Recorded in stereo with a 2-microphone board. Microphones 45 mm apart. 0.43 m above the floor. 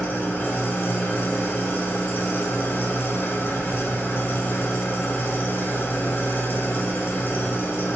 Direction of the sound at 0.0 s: 55° left (ahead or behind).